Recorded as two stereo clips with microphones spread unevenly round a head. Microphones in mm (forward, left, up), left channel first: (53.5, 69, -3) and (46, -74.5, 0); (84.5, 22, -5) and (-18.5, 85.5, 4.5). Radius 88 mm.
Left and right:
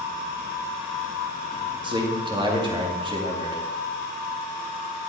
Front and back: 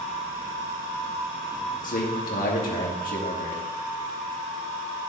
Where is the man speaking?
35° right, 2.5 m.